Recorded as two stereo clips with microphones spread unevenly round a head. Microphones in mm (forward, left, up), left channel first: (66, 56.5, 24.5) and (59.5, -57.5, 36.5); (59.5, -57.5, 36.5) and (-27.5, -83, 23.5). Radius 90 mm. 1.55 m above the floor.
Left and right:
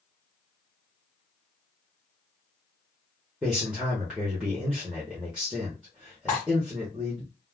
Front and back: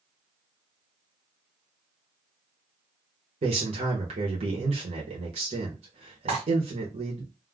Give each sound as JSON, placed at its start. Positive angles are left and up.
{"t": 3.4, "sound": "a man speaking", "azimuth_deg": -175, "distance_m": 0.9}
{"t": 6.3, "sound": "cutlery clinking", "azimuth_deg": 170, "distance_m": 1.2}